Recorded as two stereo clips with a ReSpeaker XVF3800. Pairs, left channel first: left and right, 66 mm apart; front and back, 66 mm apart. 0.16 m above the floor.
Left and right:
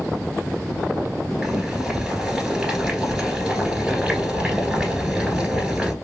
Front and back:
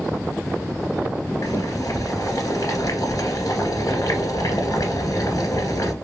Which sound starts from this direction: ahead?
Boiling, at 1.4 s.